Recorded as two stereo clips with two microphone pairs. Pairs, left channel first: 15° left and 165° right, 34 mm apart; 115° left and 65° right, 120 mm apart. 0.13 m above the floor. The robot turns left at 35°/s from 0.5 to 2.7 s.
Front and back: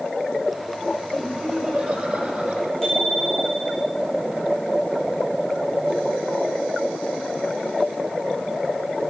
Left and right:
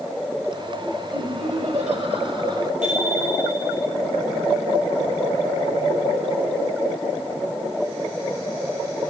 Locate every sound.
1.1 s laughter: 70° right, 4.5 m; by 2.7 s 125° right, 4.5 m
2.8 s a bicycle bell: 65° right, 8 m